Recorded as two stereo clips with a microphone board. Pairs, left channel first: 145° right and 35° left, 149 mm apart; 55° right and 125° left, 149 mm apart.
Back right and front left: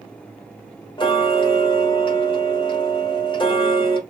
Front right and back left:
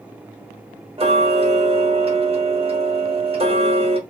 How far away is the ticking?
About 1.2 m.